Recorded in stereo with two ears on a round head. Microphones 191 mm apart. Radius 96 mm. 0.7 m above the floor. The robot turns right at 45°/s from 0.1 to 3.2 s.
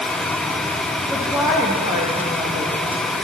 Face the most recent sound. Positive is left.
turn(degrees=-90)